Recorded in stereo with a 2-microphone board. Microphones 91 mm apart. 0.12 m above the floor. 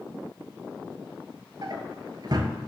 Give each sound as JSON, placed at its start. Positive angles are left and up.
{"t": 1.6, "sound": "a drawer", "side_deg": -50, "distance_m": 1.4}